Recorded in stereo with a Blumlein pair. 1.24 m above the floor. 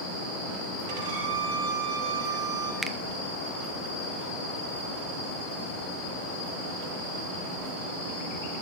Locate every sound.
0.9 s a violin: 60° right, 2.5 m
2.8 s a finger snap: 10° right, 0.5 m